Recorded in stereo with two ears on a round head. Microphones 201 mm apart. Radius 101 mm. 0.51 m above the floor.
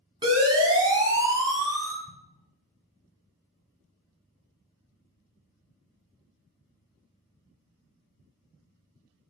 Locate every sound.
0.2 s a siren: 20° right (ahead or behind), 6.5 m; by 1.9 s 15° right (ahead or behind), 5.5 m
2.0 s an explosion: 15° left (ahead or behind), 5.5 m